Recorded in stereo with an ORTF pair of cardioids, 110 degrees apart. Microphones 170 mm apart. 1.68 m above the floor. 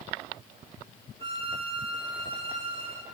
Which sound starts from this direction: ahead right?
A violin, at 1.2 s.